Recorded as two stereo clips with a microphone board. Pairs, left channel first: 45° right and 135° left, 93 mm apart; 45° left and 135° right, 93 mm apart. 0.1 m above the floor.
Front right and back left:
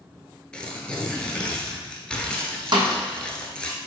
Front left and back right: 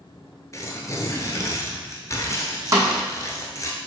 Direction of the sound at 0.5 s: 30° left.